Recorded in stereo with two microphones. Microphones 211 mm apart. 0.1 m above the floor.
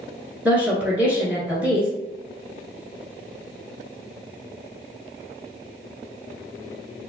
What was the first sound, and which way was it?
A woman speaking, 5° right (ahead or behind).